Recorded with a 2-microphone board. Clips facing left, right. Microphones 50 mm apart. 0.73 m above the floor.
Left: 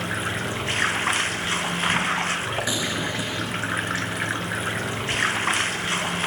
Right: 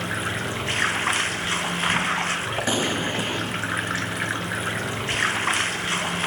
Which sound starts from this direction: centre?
Running water, at 0.0 s.